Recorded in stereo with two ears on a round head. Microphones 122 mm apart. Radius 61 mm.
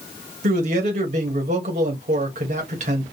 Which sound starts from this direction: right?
A man speaking, at 0.4 s.